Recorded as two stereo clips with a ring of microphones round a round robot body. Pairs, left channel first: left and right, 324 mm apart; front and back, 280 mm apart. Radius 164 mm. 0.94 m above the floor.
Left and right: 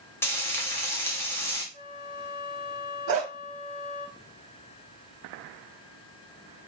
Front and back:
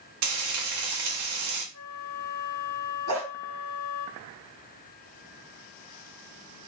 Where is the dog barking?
140° right, 1.8 m.